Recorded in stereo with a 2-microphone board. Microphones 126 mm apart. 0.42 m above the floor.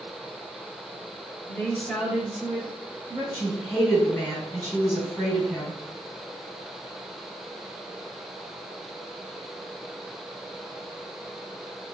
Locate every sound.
1.5 s a woman speaking: 15° left (ahead or behind), 0.9 m; by 3.2 s 35° right (ahead or behind), 1.0 m
3.3 s a woman speaking: centre (ahead or behind), 1.5 m